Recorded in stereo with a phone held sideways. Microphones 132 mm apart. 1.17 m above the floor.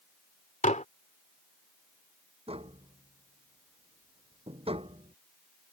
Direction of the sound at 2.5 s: 50° right (ahead or behind).